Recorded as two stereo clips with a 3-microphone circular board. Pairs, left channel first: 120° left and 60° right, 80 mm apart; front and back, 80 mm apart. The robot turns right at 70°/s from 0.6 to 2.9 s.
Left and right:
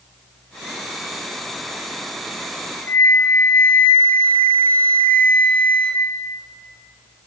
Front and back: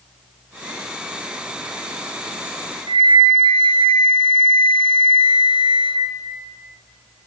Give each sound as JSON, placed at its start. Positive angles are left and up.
{"t": 2.9, "sound": "a flute", "azimuth_deg": -170, "distance_m": 0.5}